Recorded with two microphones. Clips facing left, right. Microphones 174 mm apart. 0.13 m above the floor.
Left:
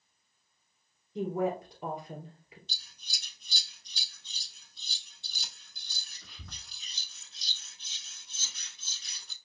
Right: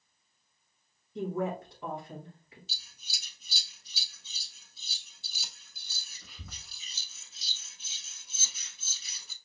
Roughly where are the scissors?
Centre.